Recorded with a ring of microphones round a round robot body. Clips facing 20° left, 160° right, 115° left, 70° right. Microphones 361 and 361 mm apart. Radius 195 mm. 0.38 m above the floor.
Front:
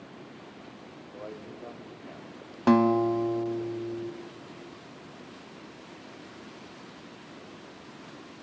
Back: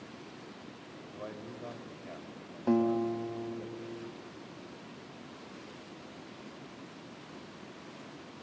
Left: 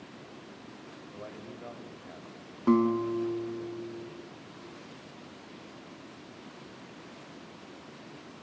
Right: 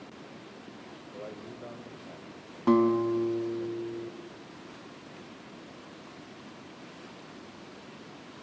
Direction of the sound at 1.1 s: 160° left.